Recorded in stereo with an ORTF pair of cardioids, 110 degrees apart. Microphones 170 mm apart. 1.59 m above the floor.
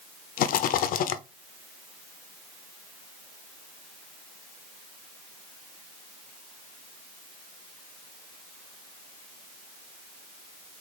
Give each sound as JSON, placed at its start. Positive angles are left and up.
{"t": 0.4, "sound": "a rattle", "azimuth_deg": 55, "distance_m": 0.5}